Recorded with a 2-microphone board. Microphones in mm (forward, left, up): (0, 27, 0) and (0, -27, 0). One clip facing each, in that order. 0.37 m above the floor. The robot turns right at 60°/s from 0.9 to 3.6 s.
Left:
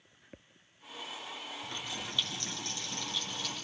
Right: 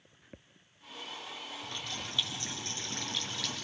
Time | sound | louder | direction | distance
1.6 | a running tap | left 1 dB | 150° left | 4.5 m